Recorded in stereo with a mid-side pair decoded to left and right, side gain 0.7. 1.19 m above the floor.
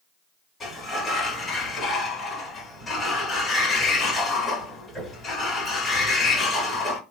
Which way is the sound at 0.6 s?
20° left.